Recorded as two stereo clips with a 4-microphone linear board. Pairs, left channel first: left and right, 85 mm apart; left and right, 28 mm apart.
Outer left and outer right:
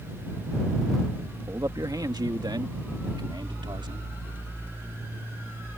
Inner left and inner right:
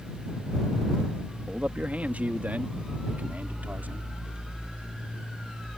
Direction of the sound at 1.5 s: 45° right (ahead or behind).